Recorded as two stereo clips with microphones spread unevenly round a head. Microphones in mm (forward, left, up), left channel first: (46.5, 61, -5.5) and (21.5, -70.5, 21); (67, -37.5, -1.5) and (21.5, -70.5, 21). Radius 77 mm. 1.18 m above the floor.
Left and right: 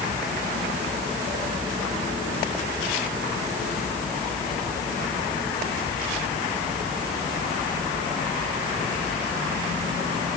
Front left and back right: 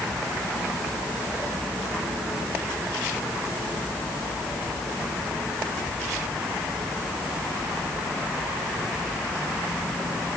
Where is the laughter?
I don't hear laughter.